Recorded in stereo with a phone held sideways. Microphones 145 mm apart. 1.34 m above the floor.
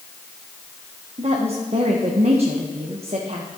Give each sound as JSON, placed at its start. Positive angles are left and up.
{"t": 1.2, "sound": "a woman speaking", "side_deg": -45, "distance_m": 0.9}